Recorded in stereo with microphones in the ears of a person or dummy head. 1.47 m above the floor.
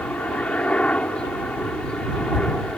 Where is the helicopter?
Centre (ahead or behind).